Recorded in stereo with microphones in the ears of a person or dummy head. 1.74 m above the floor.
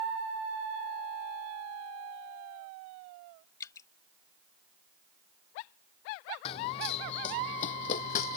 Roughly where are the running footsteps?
Left.